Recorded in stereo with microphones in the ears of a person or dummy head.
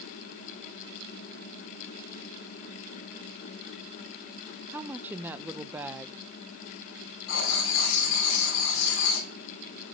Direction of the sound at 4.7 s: 10° right (ahead or behind).